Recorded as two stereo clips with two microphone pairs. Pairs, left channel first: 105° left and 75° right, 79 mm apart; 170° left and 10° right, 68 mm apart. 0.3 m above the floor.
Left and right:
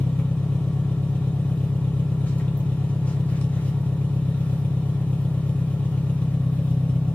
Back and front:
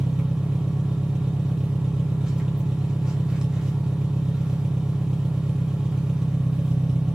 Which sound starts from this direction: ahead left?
An engine running, at 0.0 s.